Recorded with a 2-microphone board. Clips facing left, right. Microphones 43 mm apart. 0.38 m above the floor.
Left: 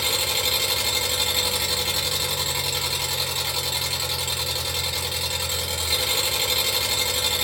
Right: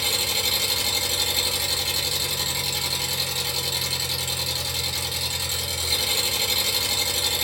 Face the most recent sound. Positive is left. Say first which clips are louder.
# left 1 dB
turn(degrees=35)  # may be behind; listen again after turning